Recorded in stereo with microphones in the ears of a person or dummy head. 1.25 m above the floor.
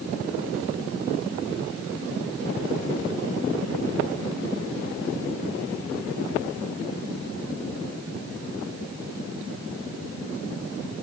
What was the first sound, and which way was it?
Only background noise.